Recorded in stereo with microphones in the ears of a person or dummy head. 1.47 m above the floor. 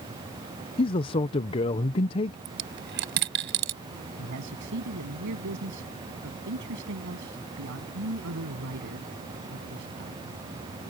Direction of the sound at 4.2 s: 65° right (ahead or behind).